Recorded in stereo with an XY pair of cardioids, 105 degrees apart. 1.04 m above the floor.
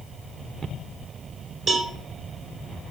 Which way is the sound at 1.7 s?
45° right.